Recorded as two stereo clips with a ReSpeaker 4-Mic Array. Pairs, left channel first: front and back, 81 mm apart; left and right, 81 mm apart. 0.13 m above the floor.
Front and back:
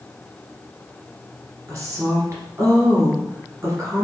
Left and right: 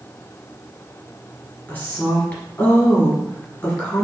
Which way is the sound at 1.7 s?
145° left.